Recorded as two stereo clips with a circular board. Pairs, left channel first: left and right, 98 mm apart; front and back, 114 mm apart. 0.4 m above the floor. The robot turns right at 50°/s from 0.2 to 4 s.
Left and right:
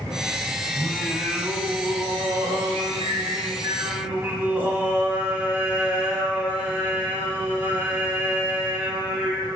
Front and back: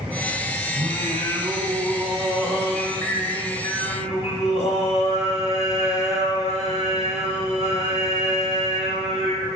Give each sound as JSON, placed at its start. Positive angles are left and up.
{"t": 0.8, "sound": "singing", "azimuth_deg": 180, "distance_m": 0.6}